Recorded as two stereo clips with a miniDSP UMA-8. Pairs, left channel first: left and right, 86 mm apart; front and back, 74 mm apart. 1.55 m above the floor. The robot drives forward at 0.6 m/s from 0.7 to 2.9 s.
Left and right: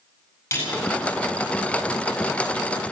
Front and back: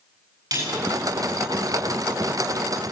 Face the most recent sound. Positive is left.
turn(degrees=155)